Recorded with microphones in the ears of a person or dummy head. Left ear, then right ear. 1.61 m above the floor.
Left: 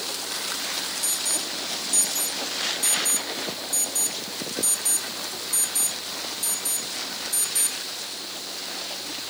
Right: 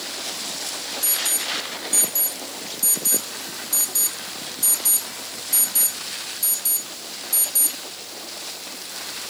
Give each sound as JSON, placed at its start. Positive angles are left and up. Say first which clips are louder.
{"t": 1.0, "sound": "an alarm", "louder": "right 3 dB", "side_deg": -15}